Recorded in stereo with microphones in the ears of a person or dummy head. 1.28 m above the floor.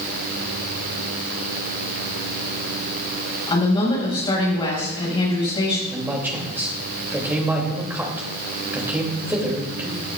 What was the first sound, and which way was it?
A woman speaking, 30° left (ahead or behind).